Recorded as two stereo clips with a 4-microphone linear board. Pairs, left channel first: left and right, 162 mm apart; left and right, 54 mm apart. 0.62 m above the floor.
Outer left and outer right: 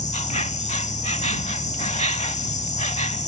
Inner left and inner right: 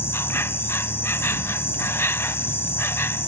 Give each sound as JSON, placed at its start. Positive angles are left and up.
{"t": 0.0, "sound": "an insect", "side_deg": 45}